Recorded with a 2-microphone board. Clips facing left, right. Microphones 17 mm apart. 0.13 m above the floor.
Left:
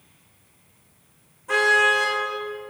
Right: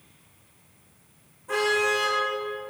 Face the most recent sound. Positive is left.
turn(degrees=30)  # may be behind; listen again after turning